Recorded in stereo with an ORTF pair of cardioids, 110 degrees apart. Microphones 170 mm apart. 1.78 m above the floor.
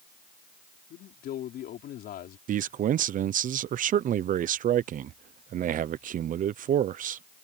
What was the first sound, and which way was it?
A man speaking, 65° left.